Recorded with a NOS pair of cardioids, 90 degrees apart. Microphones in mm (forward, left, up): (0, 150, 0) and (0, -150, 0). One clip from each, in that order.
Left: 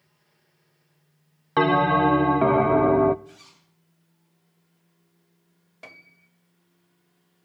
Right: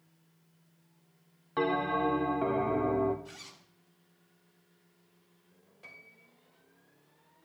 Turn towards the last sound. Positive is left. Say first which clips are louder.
# left 5 dB
turn(degrees=65)